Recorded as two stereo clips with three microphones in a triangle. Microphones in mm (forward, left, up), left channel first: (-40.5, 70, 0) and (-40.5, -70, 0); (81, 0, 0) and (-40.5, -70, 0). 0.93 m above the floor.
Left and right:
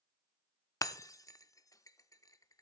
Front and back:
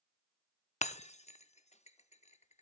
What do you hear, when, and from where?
0.8 s breaking glass: 30° left, 0.6 m